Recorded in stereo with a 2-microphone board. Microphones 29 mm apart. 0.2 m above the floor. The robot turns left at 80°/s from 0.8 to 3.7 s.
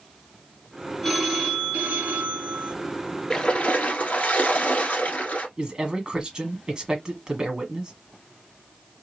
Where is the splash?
160° left, 1.5 m; by 5.5 s 130° left, 1.5 m.